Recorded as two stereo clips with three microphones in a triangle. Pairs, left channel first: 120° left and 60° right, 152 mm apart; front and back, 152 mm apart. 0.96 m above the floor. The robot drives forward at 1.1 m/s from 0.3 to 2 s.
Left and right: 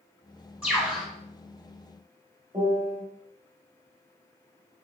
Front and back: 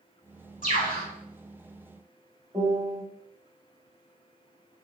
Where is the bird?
20° left, 2 m; by 1.1 s 25° left, 1.7 m.